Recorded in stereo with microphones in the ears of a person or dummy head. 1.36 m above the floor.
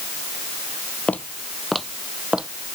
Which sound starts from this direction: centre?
Footsteps, at 1.1 s.